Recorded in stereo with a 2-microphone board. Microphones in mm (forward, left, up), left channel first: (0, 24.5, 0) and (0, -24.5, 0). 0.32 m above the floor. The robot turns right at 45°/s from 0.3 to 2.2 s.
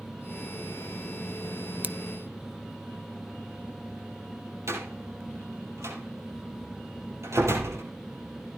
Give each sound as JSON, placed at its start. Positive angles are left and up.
{"t": 1.8, "sound": "scissors", "side_deg": -35, "distance_m": 0.8}
{"t": 4.7, "sound": "a door slam", "side_deg": -85, "distance_m": 7.0}